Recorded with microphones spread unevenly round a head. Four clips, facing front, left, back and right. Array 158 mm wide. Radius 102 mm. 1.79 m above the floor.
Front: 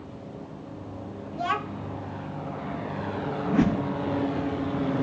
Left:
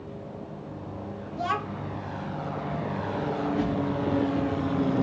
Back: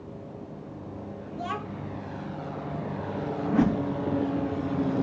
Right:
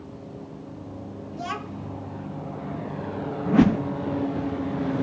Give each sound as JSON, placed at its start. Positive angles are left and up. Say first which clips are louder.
{"t": 1.3, "sound": "a child speaking", "louder": "left 4 dB, front 5 dB", "azimuth_deg": 30, "distance_m": 0.8}
{"t": 3.5, "sound": "a whoosh", "louder": "right 11 dB, even", "azimuth_deg": -70, "distance_m": 0.6}